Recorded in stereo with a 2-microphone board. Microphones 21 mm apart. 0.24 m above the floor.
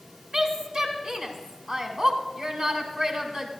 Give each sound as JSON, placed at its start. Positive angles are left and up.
{"t": 0.3, "sound": "a woman speaking", "side_deg": -45, "distance_m": 1.6}